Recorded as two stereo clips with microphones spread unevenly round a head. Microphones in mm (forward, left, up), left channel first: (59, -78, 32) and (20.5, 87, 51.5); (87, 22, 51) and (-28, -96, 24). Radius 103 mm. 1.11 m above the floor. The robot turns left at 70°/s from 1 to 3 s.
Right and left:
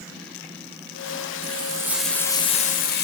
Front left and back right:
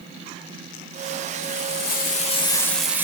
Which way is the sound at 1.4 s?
60° left.